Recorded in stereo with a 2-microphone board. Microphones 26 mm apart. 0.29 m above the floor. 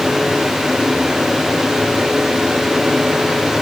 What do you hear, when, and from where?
Only background noise.